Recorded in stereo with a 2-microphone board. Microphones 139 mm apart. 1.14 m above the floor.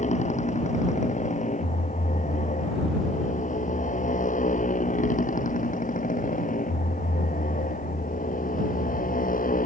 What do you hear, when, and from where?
0.0 s a motorcycle: 60° left (ahead or behind); by 9.7 s 80° left